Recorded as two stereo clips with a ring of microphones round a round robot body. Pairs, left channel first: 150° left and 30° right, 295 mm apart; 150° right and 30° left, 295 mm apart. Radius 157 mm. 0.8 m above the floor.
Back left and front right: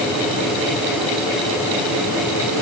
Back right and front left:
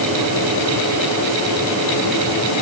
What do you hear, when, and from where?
Only background noise.